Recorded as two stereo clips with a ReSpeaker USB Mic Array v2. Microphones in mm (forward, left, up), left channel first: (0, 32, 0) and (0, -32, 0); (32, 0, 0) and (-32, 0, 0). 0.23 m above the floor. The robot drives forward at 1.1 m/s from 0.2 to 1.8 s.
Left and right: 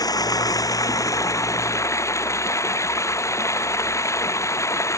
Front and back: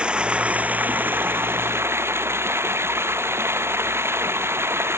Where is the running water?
105° left; by 5.0 s 130° left.